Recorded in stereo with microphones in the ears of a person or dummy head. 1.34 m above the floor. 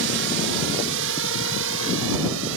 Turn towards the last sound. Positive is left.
turn(degrees=-70)  # may be behind; listen again after turning